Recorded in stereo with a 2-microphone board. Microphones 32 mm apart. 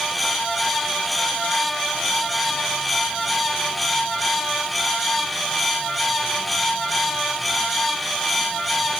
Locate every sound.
Only background noise.